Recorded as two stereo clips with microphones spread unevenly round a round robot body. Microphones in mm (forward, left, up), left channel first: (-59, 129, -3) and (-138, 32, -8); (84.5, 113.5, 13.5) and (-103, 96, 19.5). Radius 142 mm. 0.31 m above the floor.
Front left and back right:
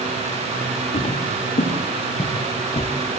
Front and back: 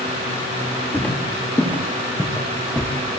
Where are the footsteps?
85° left, 7.5 m; by 2.9 s 90° left, 5.5 m.